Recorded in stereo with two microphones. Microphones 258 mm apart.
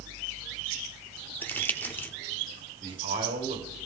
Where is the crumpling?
10° left (ahead or behind), 0.7 m.